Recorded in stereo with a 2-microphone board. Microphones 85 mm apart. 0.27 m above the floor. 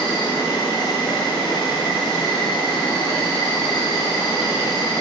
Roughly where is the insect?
Left.